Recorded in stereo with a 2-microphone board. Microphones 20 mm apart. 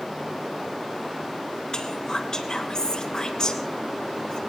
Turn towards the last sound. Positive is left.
turn(degrees=50)  # may be behind; listen again after turning